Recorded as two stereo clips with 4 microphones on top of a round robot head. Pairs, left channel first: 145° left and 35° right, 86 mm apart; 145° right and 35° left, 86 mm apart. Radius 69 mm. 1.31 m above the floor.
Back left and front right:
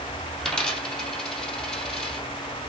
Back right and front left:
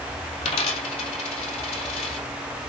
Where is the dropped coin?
130° right, 2.5 m.